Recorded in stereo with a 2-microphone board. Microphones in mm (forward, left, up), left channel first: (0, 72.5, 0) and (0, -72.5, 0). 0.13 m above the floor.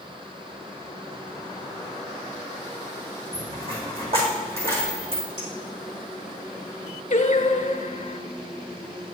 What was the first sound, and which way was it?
A dropped coin, 40° right (ahead or behind).